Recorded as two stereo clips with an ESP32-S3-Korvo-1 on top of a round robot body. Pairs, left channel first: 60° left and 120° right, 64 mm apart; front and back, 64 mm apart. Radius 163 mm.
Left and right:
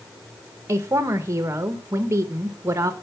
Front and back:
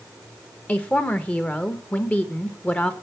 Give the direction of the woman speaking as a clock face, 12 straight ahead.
2 o'clock.